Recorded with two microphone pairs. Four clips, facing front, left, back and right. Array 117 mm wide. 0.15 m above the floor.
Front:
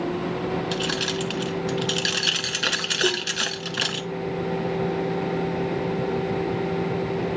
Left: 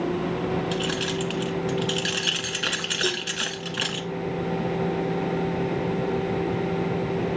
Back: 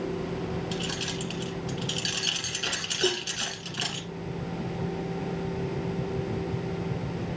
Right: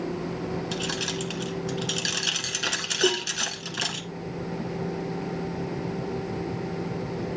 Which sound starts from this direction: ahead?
Keys jangling, at 0.7 s.